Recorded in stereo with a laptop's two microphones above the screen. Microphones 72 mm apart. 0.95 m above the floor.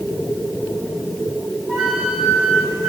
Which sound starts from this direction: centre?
A flute, at 1.7 s.